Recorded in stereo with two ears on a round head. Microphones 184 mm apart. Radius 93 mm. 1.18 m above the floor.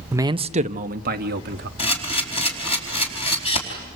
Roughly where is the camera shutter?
Left.